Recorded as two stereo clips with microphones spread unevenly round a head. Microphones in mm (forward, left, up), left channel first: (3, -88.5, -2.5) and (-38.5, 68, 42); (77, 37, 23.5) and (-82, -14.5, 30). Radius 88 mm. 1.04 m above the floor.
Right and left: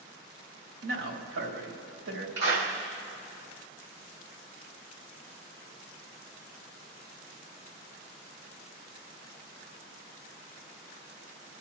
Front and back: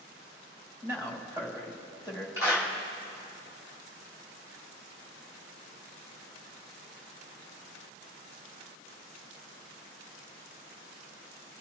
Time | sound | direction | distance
0.8 | a man speaking | 125° left | 3 m
2.4 | a clap | 120° left | 3.5 m